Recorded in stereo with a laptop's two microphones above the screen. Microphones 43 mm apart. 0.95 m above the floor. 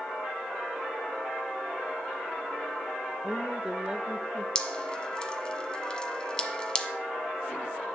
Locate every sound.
3.2 s a woman speaking: 20° right (ahead or behind), 0.8 m
4.5 s dripping: 15° left (ahead or behind), 1.3 m